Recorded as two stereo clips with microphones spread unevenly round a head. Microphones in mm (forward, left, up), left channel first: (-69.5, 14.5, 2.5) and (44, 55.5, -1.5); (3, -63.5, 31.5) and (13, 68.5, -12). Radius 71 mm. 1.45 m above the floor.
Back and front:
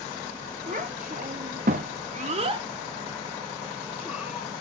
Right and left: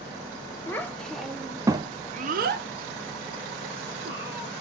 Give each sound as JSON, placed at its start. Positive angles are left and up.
{"t": 0.7, "sound": "a child speaking", "azimuth_deg": -25, "distance_m": 0.9}